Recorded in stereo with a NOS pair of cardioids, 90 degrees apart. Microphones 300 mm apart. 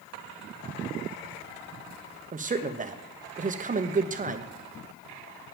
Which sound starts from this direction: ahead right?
A man speaking, at 2.3 s.